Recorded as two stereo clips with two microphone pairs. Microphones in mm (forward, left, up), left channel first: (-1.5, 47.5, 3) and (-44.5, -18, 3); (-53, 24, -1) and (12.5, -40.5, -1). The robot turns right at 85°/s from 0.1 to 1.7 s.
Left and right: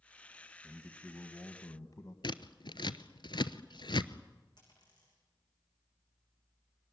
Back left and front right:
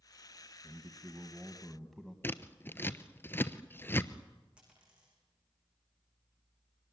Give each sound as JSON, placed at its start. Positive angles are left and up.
{"t": 0.6, "sound": "a man speaking", "azimuth_deg": -40, "distance_m": 1.7}
{"t": 2.2, "sound": "scissors", "azimuth_deg": 70, "distance_m": 0.8}
{"t": 4.6, "sound": "a dropped coin", "azimuth_deg": 35, "distance_m": 9.0}